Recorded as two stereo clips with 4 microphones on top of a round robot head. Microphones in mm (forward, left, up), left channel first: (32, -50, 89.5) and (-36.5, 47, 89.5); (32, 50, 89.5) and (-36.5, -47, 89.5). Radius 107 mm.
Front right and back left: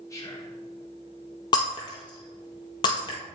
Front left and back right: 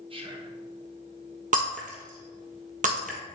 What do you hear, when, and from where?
0.1 s whispering: 110° right, 1.1 m
1.5 s breaking glass: 110° right, 1.4 m